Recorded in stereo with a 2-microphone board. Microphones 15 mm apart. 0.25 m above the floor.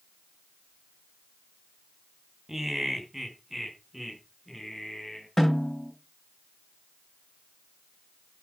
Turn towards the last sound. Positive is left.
turn(degrees=15)  # may be behind; listen again after turning